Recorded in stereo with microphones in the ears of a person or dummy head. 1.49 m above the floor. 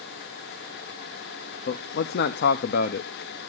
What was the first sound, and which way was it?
A man speaking, 55° left (ahead or behind).